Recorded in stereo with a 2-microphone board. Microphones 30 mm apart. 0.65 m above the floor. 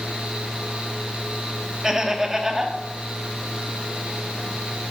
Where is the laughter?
20° right (ahead or behind), 1.1 m.